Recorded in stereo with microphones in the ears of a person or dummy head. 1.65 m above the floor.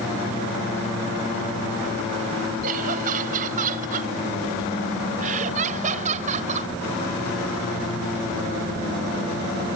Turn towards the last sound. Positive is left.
turn(degrees=-45)  # may be behind; listen again after turning